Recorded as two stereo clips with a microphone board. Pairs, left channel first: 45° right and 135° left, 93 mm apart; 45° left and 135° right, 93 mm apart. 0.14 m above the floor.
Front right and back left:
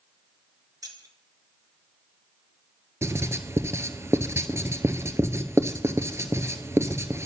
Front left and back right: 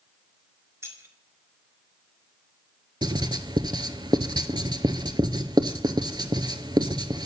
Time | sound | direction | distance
0.8 | keys jangling | 170° left | 1.5 m
3.0 | writing | 170° right | 0.6 m